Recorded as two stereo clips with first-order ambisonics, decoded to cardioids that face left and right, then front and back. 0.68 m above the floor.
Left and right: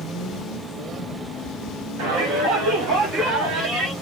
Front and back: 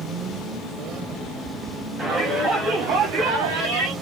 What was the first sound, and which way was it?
A shout, 105° right.